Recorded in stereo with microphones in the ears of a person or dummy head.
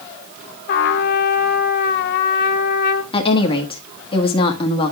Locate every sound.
0.7 s a trumpet: 55° left (ahead or behind), 0.8 m
3.1 s a woman speaking: 30° left (ahead or behind), 1.2 m